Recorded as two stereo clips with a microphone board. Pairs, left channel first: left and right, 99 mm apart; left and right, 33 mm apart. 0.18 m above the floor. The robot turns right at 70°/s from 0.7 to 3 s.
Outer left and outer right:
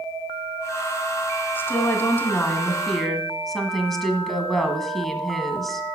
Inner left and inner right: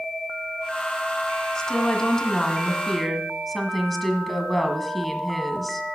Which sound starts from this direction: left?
A woman speaking, at 1.6 s.